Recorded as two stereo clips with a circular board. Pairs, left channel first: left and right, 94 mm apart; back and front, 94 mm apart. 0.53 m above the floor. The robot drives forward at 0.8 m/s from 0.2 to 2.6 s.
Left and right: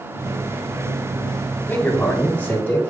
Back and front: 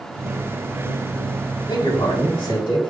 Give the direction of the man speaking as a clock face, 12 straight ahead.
7 o'clock.